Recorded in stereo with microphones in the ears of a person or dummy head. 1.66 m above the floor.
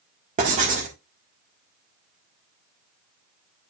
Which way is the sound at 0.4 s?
40° right (ahead or behind).